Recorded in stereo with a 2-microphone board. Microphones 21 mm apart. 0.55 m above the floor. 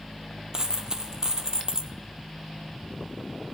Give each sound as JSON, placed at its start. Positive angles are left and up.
{"t": 0.5, "sound": "a dropped coin", "side_deg": -35, "distance_m": 0.6}